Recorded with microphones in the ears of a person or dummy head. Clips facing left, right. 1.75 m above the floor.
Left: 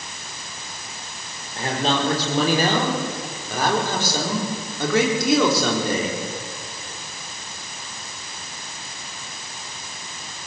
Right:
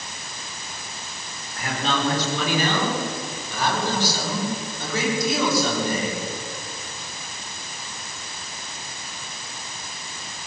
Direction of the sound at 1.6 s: 30° left (ahead or behind).